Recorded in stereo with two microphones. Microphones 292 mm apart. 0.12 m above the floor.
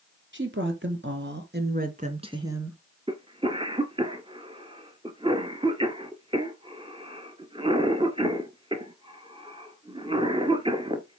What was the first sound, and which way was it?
A woman speaking, 40° right (ahead or behind).